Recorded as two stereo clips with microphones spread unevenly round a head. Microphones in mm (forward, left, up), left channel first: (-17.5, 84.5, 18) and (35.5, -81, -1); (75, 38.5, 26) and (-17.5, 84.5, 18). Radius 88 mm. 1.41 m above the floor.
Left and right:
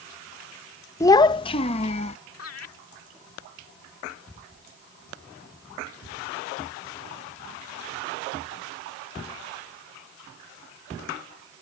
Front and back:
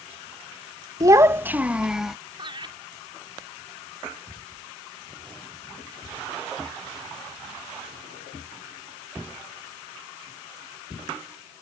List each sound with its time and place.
1.0 s a child speaking: 140° left; by 2.2 s 65° left
2.4 s laughter: 115° left